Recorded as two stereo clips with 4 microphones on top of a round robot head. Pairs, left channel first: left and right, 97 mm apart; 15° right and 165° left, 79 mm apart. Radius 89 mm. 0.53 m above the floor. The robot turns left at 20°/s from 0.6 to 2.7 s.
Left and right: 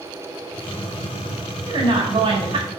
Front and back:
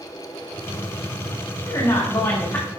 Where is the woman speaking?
55° right, 2.0 m; by 2.7 s 75° right, 2.0 m.